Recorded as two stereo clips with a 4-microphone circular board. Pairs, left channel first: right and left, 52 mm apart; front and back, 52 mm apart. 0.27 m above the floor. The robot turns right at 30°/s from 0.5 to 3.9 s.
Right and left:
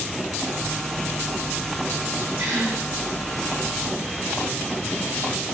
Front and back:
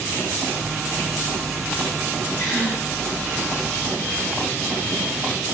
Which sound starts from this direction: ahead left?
A gasp, at 2.4 s.